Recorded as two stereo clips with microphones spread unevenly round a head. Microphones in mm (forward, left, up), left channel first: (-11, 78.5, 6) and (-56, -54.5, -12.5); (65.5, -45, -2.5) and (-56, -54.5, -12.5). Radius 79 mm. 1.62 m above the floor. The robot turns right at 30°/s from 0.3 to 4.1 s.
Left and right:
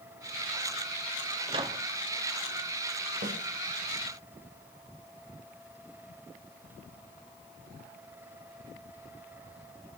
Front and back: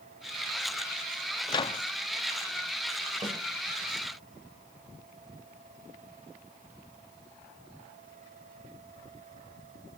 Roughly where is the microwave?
Ahead right.